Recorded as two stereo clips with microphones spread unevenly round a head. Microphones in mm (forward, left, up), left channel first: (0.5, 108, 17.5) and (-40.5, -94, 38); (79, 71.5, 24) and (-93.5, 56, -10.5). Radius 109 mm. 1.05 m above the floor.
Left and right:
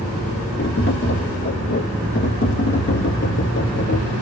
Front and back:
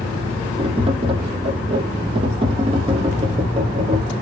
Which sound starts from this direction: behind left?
Tapping, at 0.6 s.